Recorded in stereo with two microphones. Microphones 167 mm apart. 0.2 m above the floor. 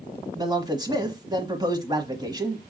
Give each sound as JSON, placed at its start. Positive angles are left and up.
{"t": 0.3, "sound": "a man speaking", "side_deg": -25, "distance_m": 1.1}